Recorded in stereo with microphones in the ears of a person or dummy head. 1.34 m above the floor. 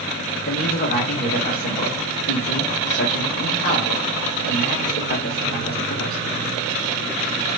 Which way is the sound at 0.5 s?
50° left (ahead or behind).